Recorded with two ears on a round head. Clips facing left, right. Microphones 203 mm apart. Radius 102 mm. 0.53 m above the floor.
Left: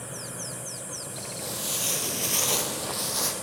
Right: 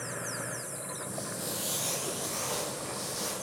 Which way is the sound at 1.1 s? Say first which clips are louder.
Even; 25° right (ahead or behind).